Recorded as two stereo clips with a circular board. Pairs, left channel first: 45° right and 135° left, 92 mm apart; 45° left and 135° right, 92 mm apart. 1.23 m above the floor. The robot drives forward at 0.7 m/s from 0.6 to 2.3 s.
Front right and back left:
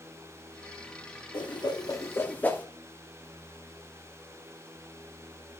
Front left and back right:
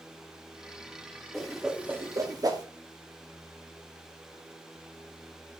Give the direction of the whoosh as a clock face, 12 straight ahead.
1 o'clock.